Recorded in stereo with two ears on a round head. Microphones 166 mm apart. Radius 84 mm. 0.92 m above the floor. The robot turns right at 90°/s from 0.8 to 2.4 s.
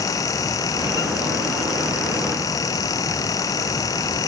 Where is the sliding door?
I don't hear a sliding door.